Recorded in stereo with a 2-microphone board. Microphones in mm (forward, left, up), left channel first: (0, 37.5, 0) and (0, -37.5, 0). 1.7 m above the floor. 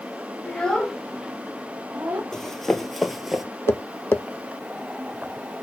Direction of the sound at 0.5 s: 15° left (ahead or behind).